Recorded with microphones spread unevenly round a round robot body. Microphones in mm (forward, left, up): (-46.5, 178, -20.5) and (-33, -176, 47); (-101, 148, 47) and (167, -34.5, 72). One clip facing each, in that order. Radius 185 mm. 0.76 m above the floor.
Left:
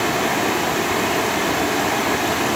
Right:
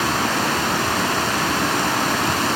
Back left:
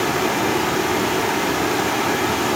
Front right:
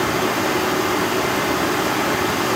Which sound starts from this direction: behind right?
Running water, at 0.0 s.